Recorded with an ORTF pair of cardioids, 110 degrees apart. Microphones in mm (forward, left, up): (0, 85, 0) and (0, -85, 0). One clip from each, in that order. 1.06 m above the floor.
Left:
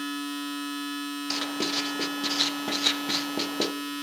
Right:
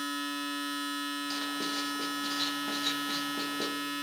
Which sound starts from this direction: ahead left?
Writing, at 1.3 s.